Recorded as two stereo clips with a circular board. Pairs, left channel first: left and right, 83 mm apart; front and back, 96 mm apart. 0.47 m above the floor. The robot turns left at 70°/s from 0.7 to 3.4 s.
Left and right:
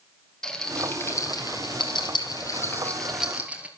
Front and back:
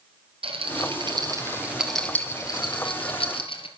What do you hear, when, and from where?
0.4 s a rattle: 175° left, 3 m; by 3.7 s 15° right, 3 m